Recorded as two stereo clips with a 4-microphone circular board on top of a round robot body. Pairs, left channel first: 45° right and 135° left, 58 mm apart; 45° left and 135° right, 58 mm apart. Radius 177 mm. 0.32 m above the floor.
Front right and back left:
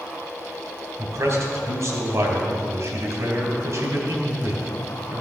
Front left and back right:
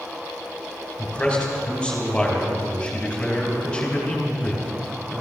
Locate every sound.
1.0 s a man speaking: 115° left, 3 m